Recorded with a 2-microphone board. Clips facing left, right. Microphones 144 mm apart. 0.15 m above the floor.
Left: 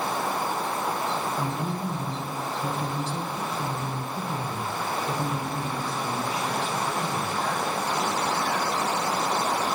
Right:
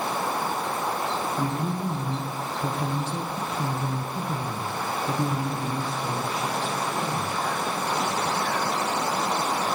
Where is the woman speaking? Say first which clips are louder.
Right 2 dB; 45° right (ahead or behind), 3 m; by 7.3 s 35° right (ahead or behind), 4 m.